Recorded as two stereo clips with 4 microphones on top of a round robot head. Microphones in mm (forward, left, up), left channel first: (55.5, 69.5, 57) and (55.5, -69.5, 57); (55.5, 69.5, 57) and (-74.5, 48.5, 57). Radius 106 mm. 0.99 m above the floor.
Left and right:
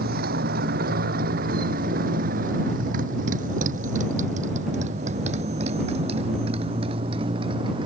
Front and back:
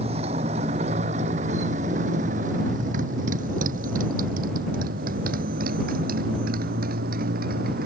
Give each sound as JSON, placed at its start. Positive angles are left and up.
{"t": 0.0, "sound": "a motorcycle", "azimuth_deg": -115}